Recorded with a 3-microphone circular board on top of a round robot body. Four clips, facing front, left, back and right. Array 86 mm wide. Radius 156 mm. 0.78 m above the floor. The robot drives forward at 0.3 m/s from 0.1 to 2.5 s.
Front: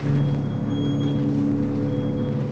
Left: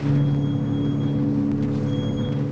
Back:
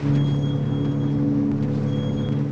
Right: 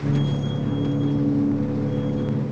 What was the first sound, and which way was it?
Only background noise.